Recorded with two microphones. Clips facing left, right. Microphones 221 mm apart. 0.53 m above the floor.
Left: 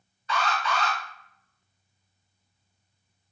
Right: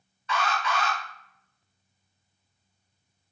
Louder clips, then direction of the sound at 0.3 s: Even; 35° left (ahead or behind).